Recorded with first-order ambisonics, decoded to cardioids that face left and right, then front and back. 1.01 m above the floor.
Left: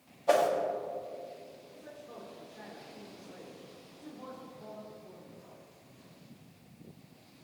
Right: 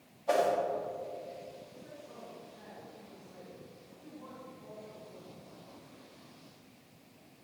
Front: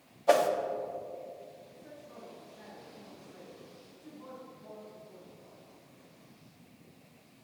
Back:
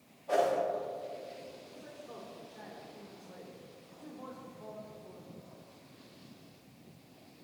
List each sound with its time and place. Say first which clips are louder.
0.3 s a whoosh: left 3 dB, front 4 dB; 15° left, 1.3 m
1.7 s a man speaking: left 2 dB, back 2 dB; 155° left, 2.5 m